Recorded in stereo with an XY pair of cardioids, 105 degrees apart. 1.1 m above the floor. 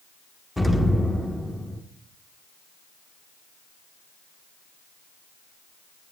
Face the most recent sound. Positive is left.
turn(degrees=10)